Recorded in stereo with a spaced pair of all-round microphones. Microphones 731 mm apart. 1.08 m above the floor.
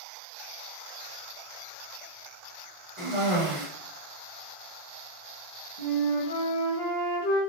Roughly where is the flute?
Left.